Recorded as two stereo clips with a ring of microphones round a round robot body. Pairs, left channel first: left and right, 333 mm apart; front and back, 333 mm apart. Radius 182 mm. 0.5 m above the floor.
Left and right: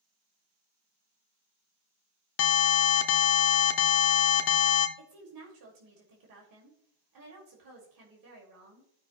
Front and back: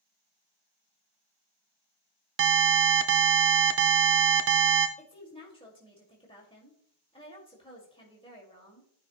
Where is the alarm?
130° left, 0.6 m.